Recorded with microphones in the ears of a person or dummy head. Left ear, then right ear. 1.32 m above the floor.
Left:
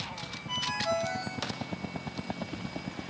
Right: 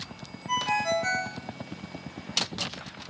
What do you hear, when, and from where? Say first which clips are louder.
0.5 s a ringtone: right 5 dB; 50° right (ahead or behind), 2 m